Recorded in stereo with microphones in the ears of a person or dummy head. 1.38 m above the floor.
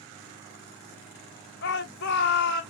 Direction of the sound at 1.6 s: 55° left (ahead or behind).